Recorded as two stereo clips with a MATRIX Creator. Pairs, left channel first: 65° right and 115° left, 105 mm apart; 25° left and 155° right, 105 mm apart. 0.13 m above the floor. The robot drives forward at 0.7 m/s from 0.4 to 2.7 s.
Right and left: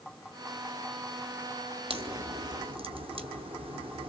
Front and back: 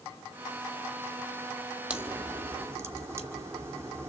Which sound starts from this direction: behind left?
A crack, at 1.9 s.